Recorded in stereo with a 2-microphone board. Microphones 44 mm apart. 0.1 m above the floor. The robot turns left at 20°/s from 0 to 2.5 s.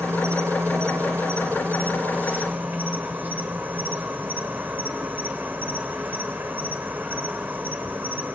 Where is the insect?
90° right, 1.0 m; by 8.3 s 140° right, 1.0 m.